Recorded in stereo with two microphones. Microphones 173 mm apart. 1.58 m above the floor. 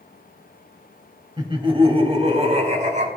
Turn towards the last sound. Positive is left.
turn(degrees=-45)  # may be behind; listen again after turning